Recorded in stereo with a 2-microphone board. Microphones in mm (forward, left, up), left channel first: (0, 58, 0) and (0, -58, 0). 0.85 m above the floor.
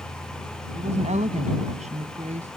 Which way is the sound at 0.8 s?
85° right.